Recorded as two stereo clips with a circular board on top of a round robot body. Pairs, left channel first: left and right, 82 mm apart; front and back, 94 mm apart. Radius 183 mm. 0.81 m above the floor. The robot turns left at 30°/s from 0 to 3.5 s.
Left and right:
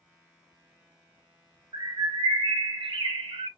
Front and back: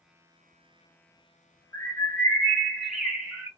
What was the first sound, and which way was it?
A bird, 60° right.